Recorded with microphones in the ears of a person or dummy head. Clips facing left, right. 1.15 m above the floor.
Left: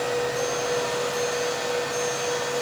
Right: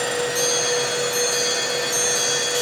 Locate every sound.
Only background noise.